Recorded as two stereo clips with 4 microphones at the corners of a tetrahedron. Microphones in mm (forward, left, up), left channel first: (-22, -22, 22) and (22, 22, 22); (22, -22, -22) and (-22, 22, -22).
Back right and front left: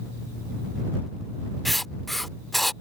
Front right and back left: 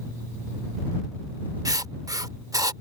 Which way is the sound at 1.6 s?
140° left.